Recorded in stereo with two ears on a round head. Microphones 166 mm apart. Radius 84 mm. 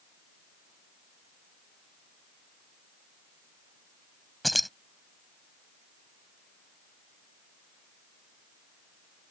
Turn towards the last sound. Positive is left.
turn(degrees=0)  # may be behind; listen again after turning